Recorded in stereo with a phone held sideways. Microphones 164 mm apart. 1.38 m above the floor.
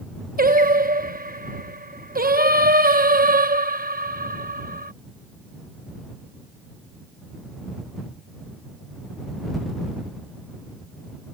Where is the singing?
60° right (ahead or behind).